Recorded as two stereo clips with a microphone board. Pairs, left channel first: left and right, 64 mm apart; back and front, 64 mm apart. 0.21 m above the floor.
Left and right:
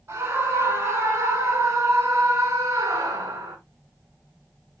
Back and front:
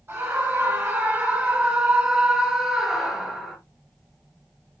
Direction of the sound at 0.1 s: 45° right.